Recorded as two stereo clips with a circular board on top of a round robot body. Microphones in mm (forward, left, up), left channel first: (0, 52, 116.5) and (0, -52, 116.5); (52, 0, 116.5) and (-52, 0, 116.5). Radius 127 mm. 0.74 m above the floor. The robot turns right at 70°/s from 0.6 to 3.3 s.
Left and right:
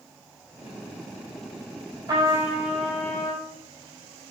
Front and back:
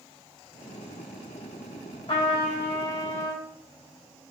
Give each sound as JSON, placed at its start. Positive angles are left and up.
{"t": 2.1, "sound": "a trumpet", "azimuth_deg": -45, "distance_m": 3.5}